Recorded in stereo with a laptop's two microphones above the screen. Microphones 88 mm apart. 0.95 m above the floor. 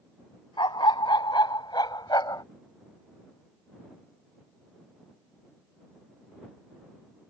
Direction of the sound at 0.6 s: 70° left (ahead or behind).